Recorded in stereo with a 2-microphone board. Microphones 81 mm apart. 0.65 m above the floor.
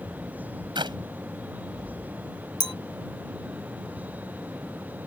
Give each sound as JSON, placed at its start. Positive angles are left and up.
{"t": 0.8, "sound": "a clap", "side_deg": -75}
{"t": 2.6, "sound": "a clink", "side_deg": 55}